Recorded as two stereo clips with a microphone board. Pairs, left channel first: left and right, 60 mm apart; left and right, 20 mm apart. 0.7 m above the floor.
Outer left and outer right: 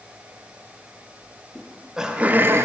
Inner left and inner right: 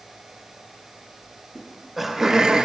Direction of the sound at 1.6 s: 10° left (ahead or behind).